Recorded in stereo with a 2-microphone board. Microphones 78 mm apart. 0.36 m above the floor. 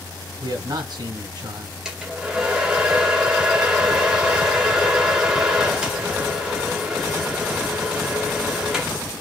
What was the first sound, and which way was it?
A man speaking, 65° right (ahead or behind).